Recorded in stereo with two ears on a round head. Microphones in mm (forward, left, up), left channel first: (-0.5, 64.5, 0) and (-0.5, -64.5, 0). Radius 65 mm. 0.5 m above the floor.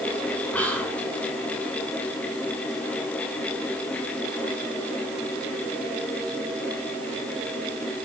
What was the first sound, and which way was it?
Whispering, 10° left (ahead or behind).